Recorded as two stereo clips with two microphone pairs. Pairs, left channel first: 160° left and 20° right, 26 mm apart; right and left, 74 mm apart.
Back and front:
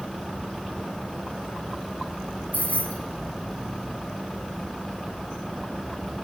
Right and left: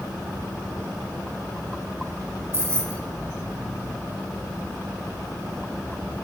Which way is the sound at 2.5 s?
140° left.